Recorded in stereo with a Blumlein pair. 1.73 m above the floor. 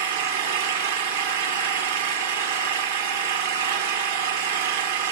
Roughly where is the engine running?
Ahead right.